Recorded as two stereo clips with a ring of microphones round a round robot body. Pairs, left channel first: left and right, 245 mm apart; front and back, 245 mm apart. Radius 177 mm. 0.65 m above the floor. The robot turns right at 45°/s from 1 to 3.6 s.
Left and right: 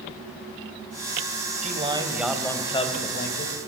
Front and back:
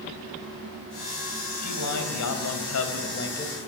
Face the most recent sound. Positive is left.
turn(degrees=60)